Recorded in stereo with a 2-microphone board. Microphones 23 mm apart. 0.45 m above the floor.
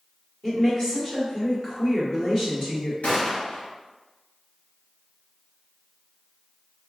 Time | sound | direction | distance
0.4 | a woman speaking | 25° left (ahead or behind) | 1.4 m
3.0 | a gunshot | 80° left | 1.3 m